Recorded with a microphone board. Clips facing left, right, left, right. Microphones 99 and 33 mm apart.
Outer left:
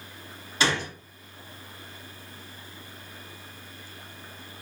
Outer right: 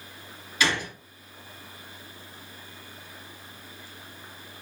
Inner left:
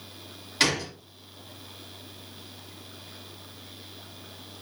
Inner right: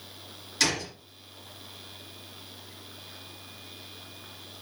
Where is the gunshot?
30° left (ahead or behind), 1.6 m.